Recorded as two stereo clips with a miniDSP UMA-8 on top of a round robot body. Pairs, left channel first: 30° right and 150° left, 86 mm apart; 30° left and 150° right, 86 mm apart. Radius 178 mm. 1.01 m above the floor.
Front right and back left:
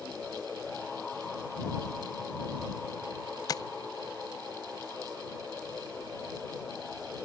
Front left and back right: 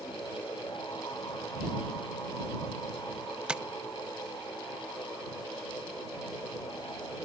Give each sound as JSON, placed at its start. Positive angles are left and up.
{"t": 3.5, "sound": "tapping", "azimuth_deg": -70}